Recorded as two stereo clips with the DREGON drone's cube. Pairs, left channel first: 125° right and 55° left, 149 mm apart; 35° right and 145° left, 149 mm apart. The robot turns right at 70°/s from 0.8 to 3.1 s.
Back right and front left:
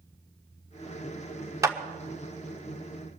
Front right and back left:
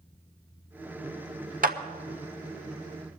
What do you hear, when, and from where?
1.6 s a clap: 125° left, 1.1 m; by 1.8 s 135° left, 1.1 m